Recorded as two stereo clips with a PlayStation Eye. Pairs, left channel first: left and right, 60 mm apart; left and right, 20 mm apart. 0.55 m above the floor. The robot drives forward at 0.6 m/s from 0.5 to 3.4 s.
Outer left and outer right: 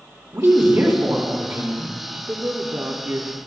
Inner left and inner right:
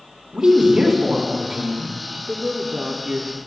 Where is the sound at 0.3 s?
45° right (ahead or behind), 1.9 m; by 2.2 s 35° right (ahead or behind), 2.5 m.